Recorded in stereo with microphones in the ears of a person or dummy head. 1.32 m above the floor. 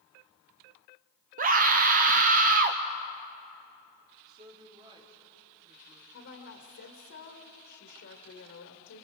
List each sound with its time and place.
1.4 s a scream: 40° right (ahead or behind), 0.6 m
4.3 s a woman speaking: 25° right (ahead or behind), 3.5 m
6.1 s a woman speaking: 65° left (ahead or behind), 1.9 m